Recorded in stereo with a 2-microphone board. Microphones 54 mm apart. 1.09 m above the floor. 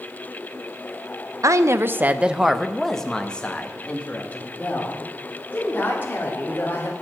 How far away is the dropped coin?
I don't hear a dropped coin.